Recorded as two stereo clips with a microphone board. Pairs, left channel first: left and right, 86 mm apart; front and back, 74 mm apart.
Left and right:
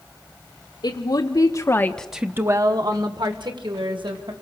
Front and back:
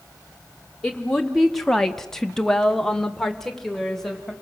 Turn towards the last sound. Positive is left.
turn(degrees=-90)